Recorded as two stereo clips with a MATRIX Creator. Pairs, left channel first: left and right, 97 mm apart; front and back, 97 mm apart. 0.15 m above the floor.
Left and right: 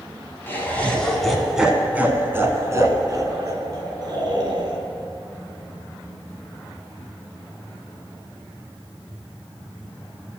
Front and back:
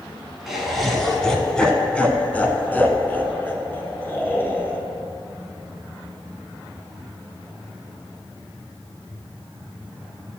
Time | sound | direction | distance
0.5 | laughter | 95° left | 1.1 m